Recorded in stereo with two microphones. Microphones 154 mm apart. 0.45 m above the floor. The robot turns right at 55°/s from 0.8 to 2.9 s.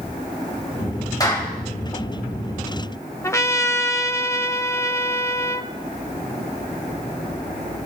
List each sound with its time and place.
1.2 s a clap: 25° left (ahead or behind), 1.8 m; by 1.5 s 10° left (ahead or behind), 1.8 m
3.2 s a trumpet: 20° left (ahead or behind), 0.6 m